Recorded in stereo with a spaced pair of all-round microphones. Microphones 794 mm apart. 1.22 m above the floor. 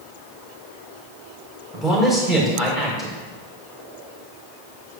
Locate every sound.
1.7 s a man speaking: centre (ahead or behind), 5 m